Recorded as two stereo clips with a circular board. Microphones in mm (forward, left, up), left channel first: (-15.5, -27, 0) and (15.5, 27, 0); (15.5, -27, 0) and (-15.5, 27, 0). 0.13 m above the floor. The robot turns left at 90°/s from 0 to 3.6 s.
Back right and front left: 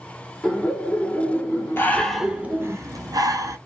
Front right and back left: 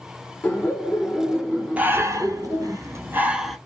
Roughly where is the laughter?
Ahead right.